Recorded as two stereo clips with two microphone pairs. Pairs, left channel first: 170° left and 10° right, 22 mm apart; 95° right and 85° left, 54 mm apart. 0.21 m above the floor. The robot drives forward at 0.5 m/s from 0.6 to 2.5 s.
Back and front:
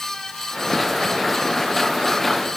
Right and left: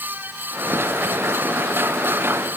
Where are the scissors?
No scissors in this recording.